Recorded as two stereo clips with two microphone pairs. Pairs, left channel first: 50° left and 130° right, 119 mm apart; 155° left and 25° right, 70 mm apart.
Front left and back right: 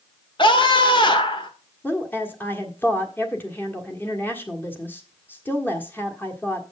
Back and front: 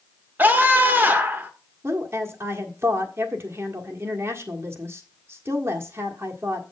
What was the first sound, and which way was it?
A scream, 25° left.